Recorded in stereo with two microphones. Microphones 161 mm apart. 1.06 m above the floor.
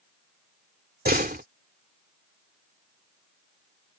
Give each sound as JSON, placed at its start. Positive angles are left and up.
{"t": 1.1, "sound": "a door slam", "side_deg": -75}